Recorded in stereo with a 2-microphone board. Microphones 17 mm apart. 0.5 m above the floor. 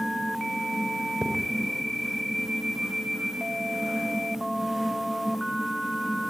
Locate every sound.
1.2 s a thud: 60° right (ahead or behind), 4.5 m